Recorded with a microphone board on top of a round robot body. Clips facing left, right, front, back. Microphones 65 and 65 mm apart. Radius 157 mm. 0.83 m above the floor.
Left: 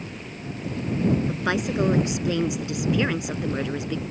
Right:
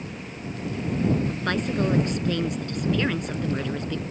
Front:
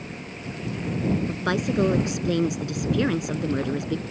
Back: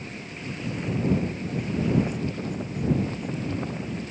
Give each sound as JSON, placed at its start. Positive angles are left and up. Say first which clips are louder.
{"t": 1.3, "sound": "a woman speaking", "louder": "left 1 dB, front 5 dB", "azimuth_deg": 10}